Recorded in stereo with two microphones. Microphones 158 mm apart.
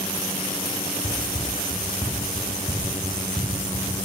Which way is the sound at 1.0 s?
30° left (ahead or behind).